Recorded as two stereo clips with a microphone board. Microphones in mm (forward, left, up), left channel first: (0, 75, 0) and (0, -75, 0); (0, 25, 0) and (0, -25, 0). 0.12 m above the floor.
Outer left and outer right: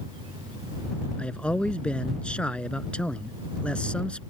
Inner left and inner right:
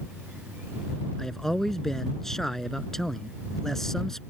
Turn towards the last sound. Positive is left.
turn(degrees=5)  # may be behind; listen again after turning